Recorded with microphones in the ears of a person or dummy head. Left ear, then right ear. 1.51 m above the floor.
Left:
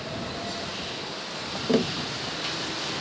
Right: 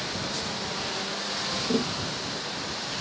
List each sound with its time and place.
1.7 s tapping: 40° left (ahead or behind)